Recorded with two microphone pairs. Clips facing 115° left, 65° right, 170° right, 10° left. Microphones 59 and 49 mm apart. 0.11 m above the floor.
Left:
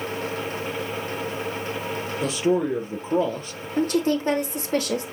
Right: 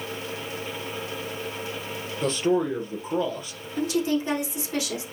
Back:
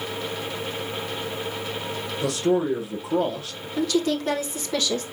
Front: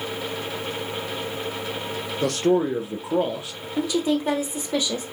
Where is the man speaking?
30° left, 2.5 m; by 3.7 s 85° left, 2.5 m.